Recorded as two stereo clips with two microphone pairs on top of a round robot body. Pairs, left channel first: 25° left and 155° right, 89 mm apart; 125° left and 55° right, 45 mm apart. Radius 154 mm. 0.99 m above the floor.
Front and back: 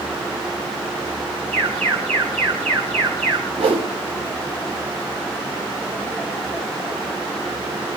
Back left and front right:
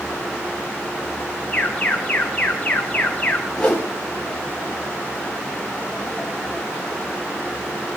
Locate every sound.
1.5 s an alarm: 165° right, 5 m
3.6 s a whoosh: 160° right, 6 m